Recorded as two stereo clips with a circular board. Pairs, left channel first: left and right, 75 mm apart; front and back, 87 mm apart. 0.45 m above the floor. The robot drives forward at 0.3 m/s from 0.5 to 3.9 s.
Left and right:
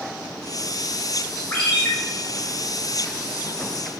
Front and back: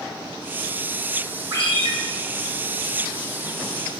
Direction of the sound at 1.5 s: 155° left.